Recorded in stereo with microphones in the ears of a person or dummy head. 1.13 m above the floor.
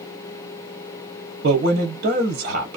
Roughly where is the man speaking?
Right.